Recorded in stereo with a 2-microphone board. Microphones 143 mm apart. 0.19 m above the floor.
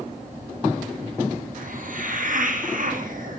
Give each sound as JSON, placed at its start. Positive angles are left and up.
{"t": 1.6, "sound": "a hiss", "side_deg": -70, "distance_m": 5.0}